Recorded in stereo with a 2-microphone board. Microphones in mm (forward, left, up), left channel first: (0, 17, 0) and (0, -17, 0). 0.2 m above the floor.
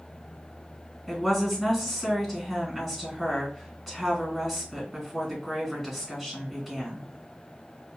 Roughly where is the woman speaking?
Centre.